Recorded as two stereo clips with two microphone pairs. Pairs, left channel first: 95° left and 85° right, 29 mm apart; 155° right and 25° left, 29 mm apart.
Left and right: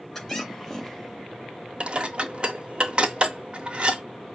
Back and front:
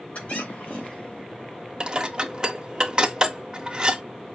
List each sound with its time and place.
0.1 s a squeak: 175° left, 3 m
1.8 s dishes clattering: 35° right, 0.7 m